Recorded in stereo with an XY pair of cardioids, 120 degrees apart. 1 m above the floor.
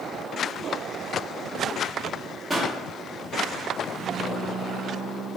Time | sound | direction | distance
2.5 | a pop | 10° right | 0.9 m